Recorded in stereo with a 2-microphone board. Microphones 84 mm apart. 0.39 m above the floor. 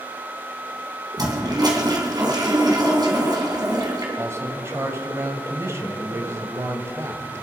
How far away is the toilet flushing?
About 3 m.